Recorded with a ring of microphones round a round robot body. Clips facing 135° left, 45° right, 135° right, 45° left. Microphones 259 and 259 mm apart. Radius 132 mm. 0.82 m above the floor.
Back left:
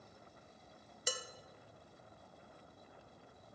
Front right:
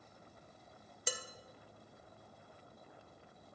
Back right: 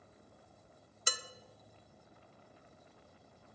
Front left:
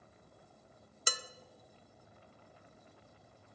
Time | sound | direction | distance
1.1 | dishes clattering | 45° left | 0.5 m